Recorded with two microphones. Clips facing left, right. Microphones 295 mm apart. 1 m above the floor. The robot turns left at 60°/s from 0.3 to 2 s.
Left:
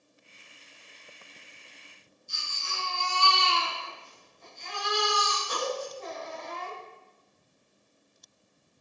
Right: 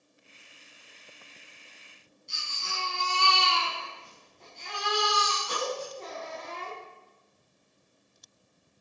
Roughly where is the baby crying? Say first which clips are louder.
Right 1 dB; right.